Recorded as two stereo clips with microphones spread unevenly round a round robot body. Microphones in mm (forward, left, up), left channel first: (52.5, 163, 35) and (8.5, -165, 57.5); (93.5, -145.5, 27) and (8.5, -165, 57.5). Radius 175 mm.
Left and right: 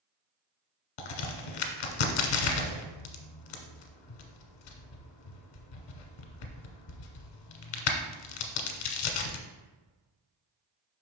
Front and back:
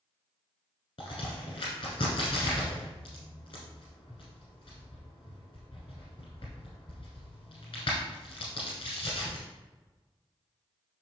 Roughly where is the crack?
Left.